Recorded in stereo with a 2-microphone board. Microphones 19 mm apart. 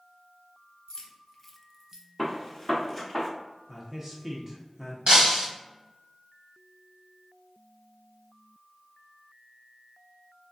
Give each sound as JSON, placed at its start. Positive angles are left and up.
{"t": 0.9, "sound": "keys jangling", "side_deg": 40, "distance_m": 1.0}
{"t": 2.2, "sound": "a gunshot", "side_deg": 10, "distance_m": 0.9}
{"t": 3.7, "sound": "a man speaking", "side_deg": -15, "distance_m": 0.7}
{"t": 5.1, "sound": "breaking glass", "side_deg": -60, "distance_m": 1.6}